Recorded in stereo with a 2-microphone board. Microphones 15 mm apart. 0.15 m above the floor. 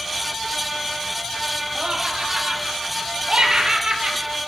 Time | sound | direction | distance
1.8 | laughter | 65° right (ahead or behind) | 6 m